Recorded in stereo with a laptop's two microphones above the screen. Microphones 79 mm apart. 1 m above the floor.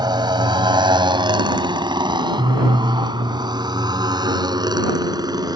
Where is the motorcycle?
75° right (ahead or behind); by 5.6 s 60° right (ahead or behind).